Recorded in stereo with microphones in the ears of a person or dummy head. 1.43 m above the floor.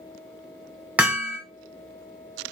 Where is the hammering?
5° right (ahead or behind), 0.8 m.